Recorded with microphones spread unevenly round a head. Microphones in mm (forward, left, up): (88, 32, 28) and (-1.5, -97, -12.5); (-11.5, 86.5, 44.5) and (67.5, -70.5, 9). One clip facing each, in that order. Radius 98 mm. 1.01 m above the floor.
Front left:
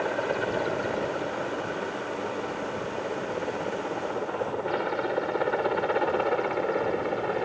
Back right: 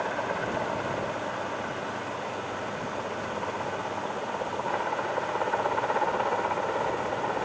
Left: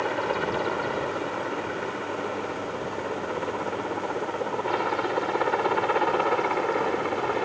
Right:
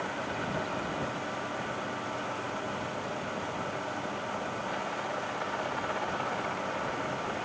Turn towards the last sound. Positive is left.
turn(degrees=115)